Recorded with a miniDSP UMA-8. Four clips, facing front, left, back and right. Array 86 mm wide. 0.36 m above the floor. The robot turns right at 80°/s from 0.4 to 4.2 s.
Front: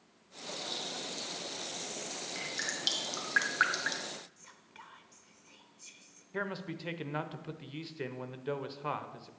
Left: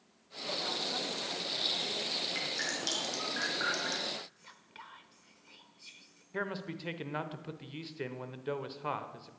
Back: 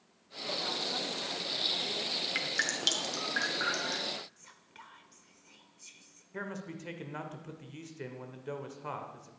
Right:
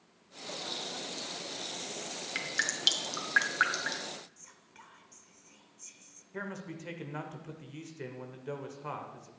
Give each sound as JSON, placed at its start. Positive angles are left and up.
{"t": 2.4, "sound": "dripping", "azimuth_deg": -145, "distance_m": 1.7}
{"t": 4.4, "sound": "whispering", "azimuth_deg": 85, "distance_m": 0.8}
{"t": 6.3, "sound": "a man speaking", "azimuth_deg": 45, "distance_m": 0.8}